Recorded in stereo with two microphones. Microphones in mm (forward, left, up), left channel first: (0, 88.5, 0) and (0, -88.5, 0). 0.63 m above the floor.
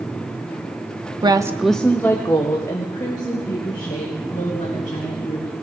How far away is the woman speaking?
About 0.7 m.